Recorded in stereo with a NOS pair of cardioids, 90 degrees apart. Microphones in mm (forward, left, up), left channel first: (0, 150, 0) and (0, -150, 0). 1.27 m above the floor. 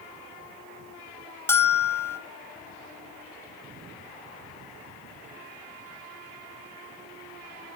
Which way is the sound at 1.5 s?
10° left.